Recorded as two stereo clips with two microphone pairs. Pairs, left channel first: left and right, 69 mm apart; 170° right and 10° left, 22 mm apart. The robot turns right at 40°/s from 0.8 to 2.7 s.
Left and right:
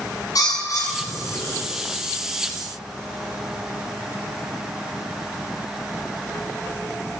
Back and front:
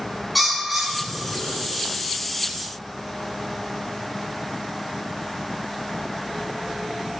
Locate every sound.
0.3 s a bird: 100° left, 2.5 m; by 1.6 s 130° left, 2.5 m